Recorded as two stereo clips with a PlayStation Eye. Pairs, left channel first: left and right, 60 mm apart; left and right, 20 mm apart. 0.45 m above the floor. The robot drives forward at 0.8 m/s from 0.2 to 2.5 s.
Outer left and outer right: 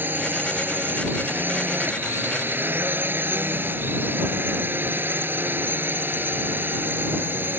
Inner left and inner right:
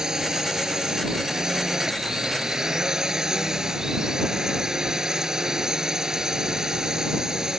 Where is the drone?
35° right (ahead or behind).